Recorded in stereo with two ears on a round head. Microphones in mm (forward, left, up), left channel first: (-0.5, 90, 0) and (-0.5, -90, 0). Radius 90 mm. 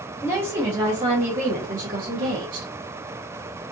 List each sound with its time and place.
0.2 s a woman speaking: 10° right (ahead or behind), 1.1 m; by 2.7 s 40° right (ahead or behind), 1.3 m